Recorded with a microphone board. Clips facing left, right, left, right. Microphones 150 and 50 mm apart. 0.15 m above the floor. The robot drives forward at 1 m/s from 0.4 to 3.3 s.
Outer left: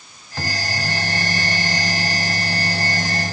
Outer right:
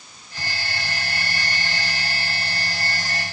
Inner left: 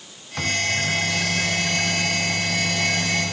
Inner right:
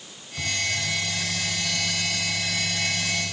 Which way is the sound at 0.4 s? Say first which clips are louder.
Outer left 6 dB, inner left 5 dB; 65° left (ahead or behind).